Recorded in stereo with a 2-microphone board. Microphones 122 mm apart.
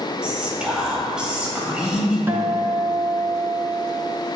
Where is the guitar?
20° right (ahead or behind), 0.7 m.